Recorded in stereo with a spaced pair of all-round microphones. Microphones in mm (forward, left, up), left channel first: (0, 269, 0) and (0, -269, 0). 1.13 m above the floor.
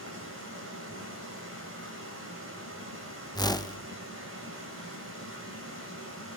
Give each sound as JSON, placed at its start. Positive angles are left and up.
{"t": 0.0, "sound": "running water", "side_deg": -25, "distance_m": 6.0}
{"t": 3.4, "sound": "a whoosh", "side_deg": 10, "distance_m": 0.6}